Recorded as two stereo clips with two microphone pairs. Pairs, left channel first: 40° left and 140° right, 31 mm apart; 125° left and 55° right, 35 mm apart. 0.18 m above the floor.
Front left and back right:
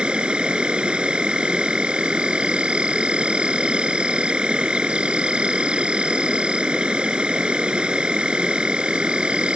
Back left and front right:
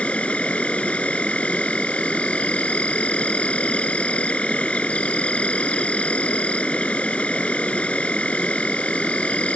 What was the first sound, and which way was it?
An insect, 170° left.